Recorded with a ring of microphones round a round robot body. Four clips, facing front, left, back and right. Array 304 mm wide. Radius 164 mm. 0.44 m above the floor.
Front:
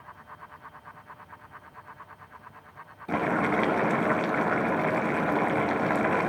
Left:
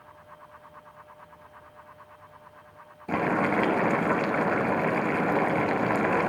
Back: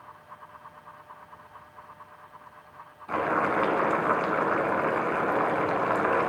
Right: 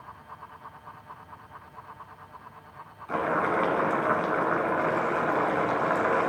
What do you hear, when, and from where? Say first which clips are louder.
3.1 s boiling: left 1 dB, even; 50° left, 1.1 m